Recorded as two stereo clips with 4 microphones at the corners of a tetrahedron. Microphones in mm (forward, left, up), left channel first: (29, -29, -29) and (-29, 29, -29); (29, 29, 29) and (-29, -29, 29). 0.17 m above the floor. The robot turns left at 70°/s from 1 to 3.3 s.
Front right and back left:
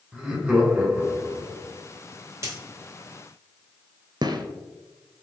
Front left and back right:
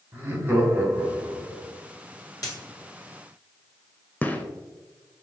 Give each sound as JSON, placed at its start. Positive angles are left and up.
{"t": 0.1, "sound": "laughter", "azimuth_deg": -165, "distance_m": 1.4}
{"t": 2.4, "sound": "a dropped coin", "azimuth_deg": 85, "distance_m": 1.4}
{"t": 4.2, "sound": "a gunshot", "azimuth_deg": 115, "distance_m": 0.6}